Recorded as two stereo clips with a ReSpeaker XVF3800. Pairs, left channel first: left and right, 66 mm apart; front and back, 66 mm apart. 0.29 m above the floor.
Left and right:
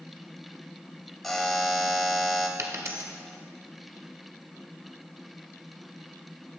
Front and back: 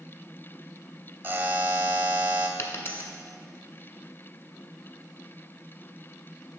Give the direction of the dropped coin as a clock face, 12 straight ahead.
2 o'clock.